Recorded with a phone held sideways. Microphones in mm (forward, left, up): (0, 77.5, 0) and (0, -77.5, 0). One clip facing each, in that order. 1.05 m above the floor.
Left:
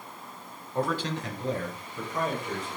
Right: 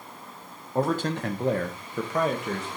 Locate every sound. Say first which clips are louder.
0.8 s a man speaking: right 4 dB; 35° right (ahead or behind), 0.6 m; by 2.7 s 70° right (ahead or behind), 1.3 m